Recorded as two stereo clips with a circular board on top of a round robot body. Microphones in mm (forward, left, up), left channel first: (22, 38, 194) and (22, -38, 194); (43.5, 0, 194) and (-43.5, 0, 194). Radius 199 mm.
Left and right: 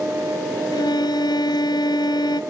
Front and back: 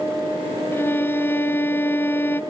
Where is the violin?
65° left.